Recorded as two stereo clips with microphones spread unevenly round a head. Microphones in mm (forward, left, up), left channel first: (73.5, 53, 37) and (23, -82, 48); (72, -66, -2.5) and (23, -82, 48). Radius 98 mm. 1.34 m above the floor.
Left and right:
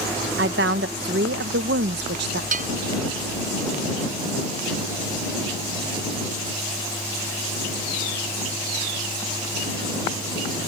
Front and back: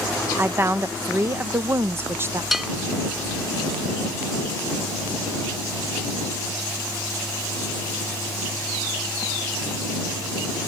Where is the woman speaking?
135° right.